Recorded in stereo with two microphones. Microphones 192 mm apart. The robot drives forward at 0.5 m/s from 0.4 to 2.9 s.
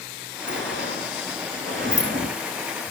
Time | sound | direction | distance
0.5 | a sliding door | 75° right (ahead or behind) | 5.5 m